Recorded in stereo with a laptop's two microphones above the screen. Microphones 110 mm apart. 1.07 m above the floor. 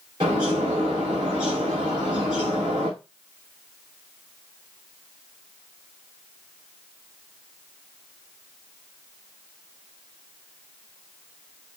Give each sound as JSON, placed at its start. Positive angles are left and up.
{"t": 0.2, "sound": "a bird", "side_deg": -45, "distance_m": 3.0}